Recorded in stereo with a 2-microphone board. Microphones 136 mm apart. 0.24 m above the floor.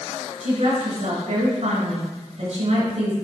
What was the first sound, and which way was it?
A woman speaking, 55° right (ahead or behind).